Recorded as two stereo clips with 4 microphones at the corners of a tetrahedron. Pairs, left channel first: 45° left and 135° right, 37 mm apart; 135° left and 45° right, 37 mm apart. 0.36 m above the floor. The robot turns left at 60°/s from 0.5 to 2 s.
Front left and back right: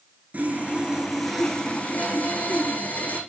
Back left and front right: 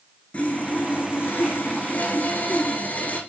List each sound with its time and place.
0.3 s sawing: 175° right, 3 m; by 3.2 s 95° left, 3 m